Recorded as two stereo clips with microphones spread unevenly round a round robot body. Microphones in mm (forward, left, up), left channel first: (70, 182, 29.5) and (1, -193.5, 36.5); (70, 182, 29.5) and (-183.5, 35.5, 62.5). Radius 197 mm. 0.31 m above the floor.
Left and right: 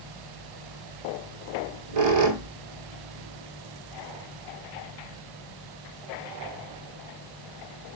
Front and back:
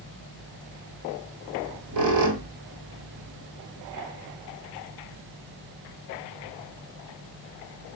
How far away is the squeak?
About 0.9 m.